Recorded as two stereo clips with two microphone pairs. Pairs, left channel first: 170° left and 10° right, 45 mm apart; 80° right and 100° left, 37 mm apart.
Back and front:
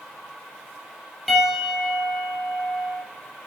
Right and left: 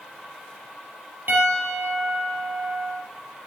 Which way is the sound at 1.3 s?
80° left.